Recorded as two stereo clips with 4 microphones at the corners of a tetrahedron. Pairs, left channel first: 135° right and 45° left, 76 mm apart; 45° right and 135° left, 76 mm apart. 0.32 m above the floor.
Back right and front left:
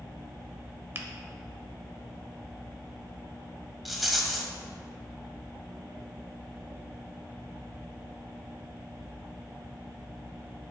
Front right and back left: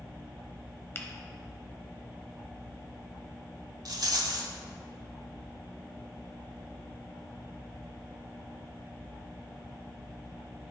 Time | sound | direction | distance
0.9 | a finger snap | straight ahead | 0.8 m
3.9 | a rattle | 135° left | 1.0 m